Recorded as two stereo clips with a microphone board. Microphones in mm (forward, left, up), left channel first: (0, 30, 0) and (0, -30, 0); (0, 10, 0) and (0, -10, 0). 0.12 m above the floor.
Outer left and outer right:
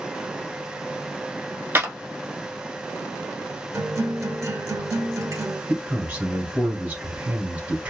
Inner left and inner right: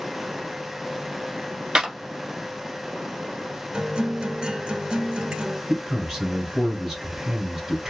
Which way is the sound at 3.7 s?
55° right (ahead or behind).